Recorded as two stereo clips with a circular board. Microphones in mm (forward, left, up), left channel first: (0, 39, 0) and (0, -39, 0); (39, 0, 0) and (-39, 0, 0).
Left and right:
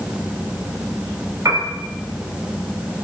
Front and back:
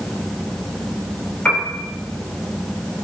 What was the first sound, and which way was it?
A piano, 65° right.